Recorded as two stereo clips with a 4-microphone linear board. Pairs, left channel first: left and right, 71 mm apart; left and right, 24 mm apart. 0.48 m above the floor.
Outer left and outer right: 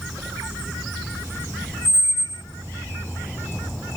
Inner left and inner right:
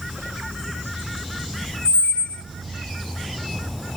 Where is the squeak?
85° left, 0.6 m.